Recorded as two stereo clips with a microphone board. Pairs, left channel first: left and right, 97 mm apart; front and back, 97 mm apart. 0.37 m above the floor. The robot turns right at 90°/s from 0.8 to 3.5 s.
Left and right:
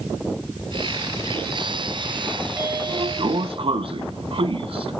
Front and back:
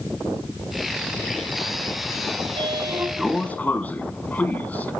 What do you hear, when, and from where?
2.4 s a sliding door: 170° right, 0.8 m; by 4.9 s 70° right, 0.8 m